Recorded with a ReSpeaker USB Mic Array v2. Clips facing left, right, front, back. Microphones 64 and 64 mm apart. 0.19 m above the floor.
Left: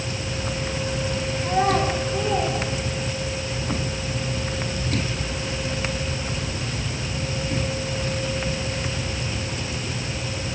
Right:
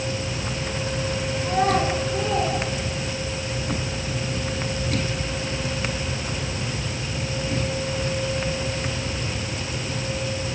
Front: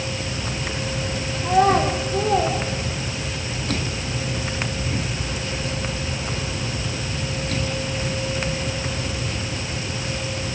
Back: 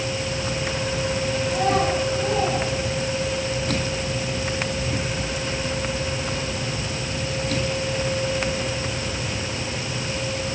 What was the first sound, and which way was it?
A child speaking, 10° left.